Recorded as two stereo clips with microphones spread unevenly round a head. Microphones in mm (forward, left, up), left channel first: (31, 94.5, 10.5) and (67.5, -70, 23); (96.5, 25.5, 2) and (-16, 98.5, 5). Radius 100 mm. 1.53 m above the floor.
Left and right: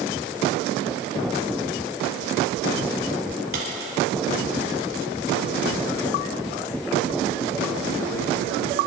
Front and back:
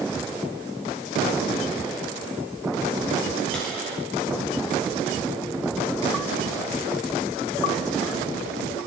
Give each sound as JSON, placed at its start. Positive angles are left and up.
{"t": 3.5, "sound": "a dropped coin", "azimuth_deg": -120, "distance_m": 4.0}